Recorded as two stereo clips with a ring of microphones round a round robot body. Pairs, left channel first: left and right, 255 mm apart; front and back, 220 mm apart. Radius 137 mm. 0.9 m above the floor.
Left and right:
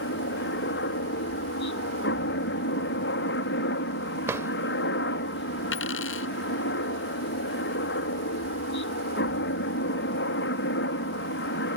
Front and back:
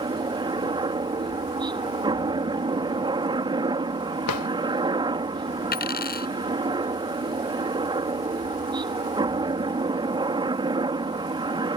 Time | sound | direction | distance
0.0 | a helicopter | 115° left | ?
4.3 | a drawer | 10° right | ?
5.7 | a dropped coin | 45° left | ?